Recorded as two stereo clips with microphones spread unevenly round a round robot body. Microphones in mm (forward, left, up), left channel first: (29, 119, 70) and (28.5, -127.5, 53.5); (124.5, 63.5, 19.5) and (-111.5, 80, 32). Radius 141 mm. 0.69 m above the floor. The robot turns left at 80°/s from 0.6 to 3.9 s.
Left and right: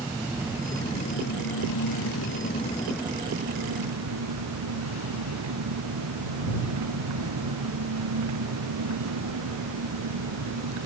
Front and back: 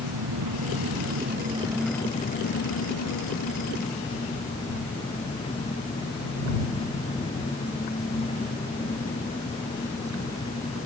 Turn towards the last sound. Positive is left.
turn(degrees=-80)